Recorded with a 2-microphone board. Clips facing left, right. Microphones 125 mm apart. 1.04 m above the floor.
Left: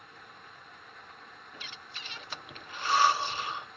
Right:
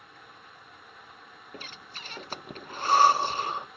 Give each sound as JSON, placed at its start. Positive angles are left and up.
{"t": 1.5, "sound": "breathing", "side_deg": -40, "distance_m": 0.5}